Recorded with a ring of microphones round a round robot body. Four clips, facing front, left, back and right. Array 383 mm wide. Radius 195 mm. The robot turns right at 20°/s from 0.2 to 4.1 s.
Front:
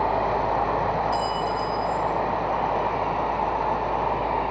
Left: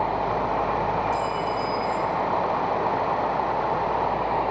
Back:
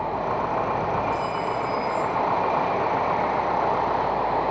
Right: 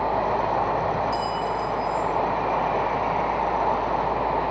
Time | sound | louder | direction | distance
1.1 | a clink | even, front 1 dB | 5° right | 4.5 m